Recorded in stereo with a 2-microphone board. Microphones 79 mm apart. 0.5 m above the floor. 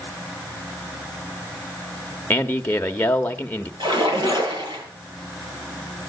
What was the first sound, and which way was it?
A man speaking, 25° left (ahead or behind).